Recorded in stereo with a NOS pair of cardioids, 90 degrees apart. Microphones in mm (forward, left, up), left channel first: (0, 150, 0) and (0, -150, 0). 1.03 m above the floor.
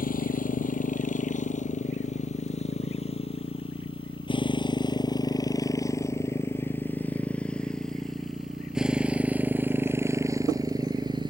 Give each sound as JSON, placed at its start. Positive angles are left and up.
{"t": 0.0, "sound": "a motorcycle", "azimuth_deg": 25}